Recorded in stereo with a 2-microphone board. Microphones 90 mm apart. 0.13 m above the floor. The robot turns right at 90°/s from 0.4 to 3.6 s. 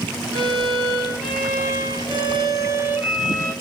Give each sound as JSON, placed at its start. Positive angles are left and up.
{"t": 0.3, "sound": "a violin", "azimuth_deg": 110, "distance_m": 1.8}